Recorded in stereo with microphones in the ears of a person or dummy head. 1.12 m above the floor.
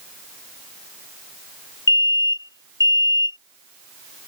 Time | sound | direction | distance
1.9 | an alarm | 20° left (ahead or behind) | ?